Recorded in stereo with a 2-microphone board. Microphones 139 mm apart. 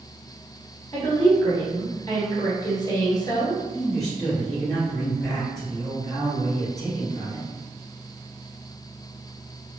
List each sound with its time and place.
0.9 s a woman speaking: 30° left (ahead or behind), 1.3 m
3.7 s a man speaking: 5° left (ahead or behind), 2.0 m